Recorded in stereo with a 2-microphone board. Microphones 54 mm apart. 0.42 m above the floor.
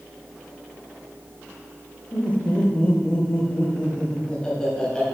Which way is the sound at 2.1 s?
30° left (ahead or behind).